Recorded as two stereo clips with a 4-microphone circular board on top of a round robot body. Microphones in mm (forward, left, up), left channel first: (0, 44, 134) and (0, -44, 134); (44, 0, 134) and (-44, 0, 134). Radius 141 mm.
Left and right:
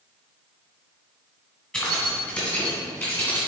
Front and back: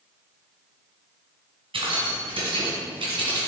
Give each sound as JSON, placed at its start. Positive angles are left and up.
{"t": 1.7, "sound": "keys jangling", "azimuth_deg": 170, "distance_m": 1.9}